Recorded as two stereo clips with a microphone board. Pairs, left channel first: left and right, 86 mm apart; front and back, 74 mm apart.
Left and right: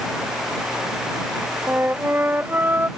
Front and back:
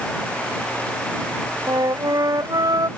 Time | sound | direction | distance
1.7 | a flute | 155° right | ?